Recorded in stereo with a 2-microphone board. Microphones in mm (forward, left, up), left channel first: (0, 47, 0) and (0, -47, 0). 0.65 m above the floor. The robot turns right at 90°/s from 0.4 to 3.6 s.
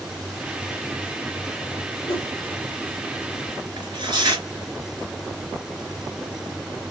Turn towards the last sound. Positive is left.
turn(degrees=-50)  # may be behind; listen again after turning